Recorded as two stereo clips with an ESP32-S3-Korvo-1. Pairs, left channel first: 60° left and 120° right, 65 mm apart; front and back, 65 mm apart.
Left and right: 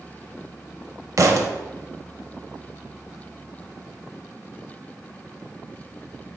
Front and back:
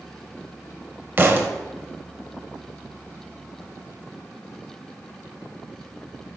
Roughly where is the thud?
Behind right.